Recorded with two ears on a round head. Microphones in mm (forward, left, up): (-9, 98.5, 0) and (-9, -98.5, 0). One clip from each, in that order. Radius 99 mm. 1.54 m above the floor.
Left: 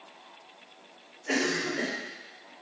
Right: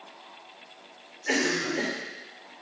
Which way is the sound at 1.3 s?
80° right.